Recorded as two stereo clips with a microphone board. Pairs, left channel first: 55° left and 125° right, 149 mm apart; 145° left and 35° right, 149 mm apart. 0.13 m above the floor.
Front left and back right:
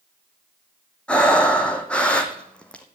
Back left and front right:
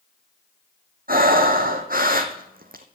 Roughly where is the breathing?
Ahead right.